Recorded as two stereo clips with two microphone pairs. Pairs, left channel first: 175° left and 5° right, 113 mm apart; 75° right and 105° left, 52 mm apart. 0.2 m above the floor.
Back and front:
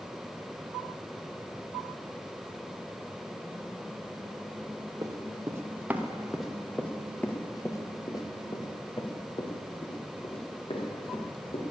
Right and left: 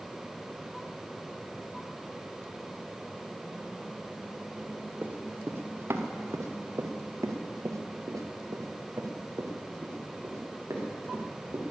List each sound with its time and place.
5.0 s running footsteps: 50° left, 2.0 m; by 11.6 s 140° left, 4.5 m